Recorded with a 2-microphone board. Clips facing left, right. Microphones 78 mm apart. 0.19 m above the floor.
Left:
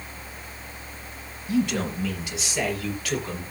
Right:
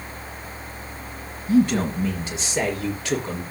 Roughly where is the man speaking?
Right.